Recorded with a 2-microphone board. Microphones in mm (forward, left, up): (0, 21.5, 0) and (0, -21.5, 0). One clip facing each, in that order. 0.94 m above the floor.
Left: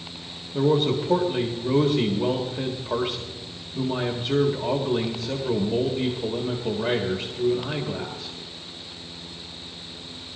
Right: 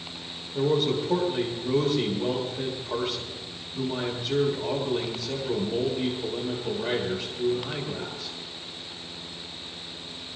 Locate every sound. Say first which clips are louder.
0.5 s a man speaking: left 3 dB; 50° left (ahead or behind), 1.9 m